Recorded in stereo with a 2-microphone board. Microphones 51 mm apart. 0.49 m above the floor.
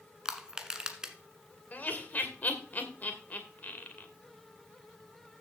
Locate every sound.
0.2 s crushing: 15° right (ahead or behind), 1.5 m
1.7 s laughter: 35° left (ahead or behind), 2 m